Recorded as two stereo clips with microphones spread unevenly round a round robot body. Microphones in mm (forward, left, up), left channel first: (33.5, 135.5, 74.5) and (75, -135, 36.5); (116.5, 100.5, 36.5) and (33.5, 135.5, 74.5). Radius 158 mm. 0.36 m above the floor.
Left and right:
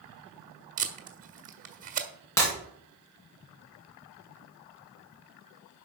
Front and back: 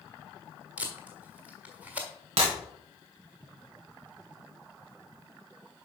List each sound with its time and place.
0.8 s tape being pulled: 105° right, 1.4 m
2.4 s breaking glass: straight behind, 3 m